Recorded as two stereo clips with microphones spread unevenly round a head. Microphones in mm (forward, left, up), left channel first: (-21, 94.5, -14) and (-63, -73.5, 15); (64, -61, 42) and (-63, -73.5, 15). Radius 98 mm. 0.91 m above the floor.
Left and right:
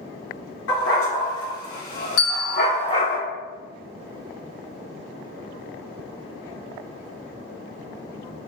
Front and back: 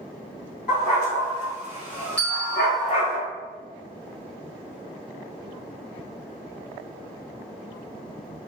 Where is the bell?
90° left, 1.6 m.